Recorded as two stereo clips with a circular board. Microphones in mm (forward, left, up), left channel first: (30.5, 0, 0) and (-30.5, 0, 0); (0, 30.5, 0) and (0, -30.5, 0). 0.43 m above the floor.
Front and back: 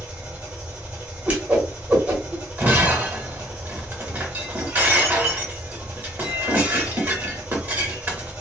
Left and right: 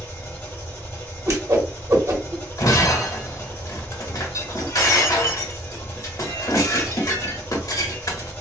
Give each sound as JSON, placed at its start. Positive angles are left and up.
{"t": 0.0, "sound": "an engine running", "azimuth_deg": 130, "distance_m": 1.2}
{"t": 1.3, "sound": "a whoosh", "azimuth_deg": -120, "distance_m": 1.0}
{"t": 2.6, "sound": "breaking glass", "azimuth_deg": 120, "distance_m": 0.8}